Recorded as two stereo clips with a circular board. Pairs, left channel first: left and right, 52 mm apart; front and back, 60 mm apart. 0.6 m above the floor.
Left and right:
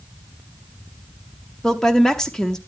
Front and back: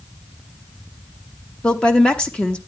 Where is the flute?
No flute in this recording.